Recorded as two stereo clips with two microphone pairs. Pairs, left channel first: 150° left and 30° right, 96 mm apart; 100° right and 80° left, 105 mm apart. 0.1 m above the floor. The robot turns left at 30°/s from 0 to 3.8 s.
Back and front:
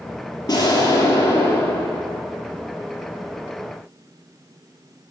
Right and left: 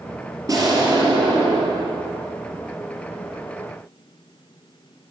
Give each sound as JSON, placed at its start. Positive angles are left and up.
{"t": 0.5, "sound": "an explosion", "azimuth_deg": 125, "distance_m": 1.1}